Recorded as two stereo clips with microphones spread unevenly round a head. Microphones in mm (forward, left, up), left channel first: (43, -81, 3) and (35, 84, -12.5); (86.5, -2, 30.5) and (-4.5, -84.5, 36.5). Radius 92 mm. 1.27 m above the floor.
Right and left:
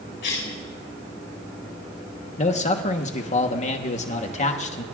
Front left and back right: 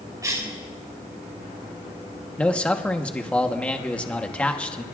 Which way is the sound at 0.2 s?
75° right.